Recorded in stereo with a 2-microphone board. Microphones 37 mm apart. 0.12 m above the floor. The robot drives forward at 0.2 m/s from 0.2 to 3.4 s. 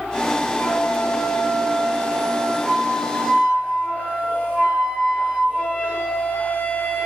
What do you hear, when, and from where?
0.6 s a flute: 40° left (ahead or behind), 1.3 m; by 7.1 s 35° left (ahead or behind), 1.6 m